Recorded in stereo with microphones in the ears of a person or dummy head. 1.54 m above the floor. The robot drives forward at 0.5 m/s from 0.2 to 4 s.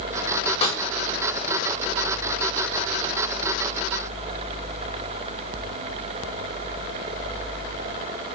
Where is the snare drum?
35° left (ahead or behind), 5.5 m.